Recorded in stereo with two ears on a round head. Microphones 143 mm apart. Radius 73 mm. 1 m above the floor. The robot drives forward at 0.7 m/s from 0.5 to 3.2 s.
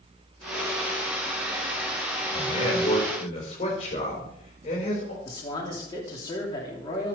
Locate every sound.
2.3 s a man speaking: 30° left (ahead or behind), 4.5 m; by 5.2 s 35° left (ahead or behind), 4 m
5.2 s a man speaking: 25° left (ahead or behind), 3 m